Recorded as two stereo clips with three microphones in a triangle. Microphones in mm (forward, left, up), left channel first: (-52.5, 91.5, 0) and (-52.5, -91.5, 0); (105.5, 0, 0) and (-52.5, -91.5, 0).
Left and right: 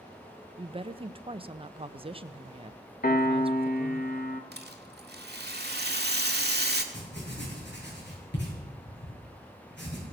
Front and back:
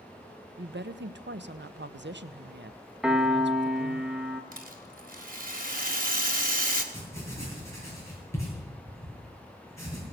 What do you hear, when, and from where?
0.6 s a woman speaking: 150° right, 0.7 m
3.0 s a piano: 125° left, 1.6 m
4.5 s a rattle: 115° right, 1.7 m
6.9 s writing: 105° left, 8 m